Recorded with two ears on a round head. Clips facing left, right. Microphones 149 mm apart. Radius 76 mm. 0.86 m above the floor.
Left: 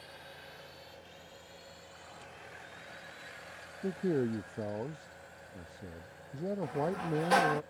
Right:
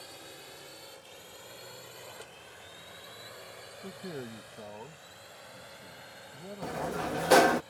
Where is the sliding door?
50° right (ahead or behind).